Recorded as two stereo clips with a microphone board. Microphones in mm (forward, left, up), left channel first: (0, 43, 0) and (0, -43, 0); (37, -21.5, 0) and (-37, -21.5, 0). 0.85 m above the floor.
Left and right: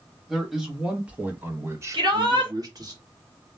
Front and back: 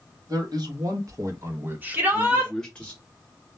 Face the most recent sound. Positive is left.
turn(degrees=-115)